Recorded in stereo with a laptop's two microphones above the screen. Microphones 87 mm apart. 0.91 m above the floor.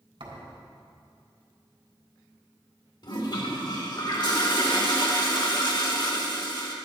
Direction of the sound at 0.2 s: 75° right (ahead or behind).